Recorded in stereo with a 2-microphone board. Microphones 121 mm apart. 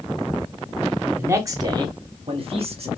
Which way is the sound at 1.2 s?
20° right (ahead or behind).